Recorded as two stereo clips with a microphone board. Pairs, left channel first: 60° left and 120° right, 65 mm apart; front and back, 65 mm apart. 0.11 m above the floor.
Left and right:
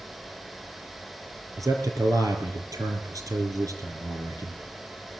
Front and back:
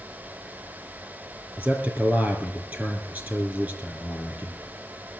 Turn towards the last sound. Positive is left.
turn(degrees=-125)